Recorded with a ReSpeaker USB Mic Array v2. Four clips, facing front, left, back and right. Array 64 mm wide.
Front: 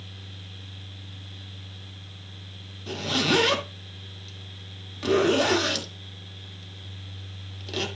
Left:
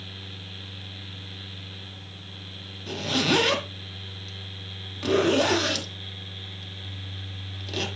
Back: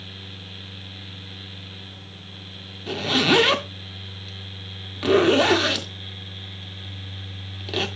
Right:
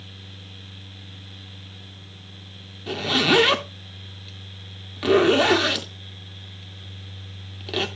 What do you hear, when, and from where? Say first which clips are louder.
2.9 s a zipper: right 4 dB, back 4 dB; 140° right, 0.9 m